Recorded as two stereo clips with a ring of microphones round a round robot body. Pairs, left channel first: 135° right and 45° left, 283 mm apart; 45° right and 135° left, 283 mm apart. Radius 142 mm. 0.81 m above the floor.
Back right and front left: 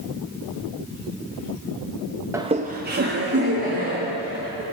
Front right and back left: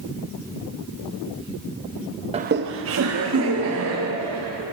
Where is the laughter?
110° left, 0.6 m; by 4.6 s 95° left, 3.5 m.